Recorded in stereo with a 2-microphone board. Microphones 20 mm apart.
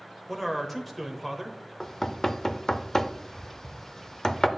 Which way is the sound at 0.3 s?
5° left (ahead or behind).